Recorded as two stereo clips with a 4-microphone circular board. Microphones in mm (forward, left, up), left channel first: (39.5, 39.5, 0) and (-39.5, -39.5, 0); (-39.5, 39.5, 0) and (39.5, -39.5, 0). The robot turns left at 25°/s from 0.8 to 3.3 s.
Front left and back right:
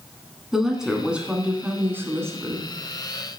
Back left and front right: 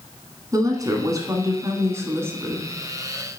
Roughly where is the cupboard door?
I don't hear a cupboard door.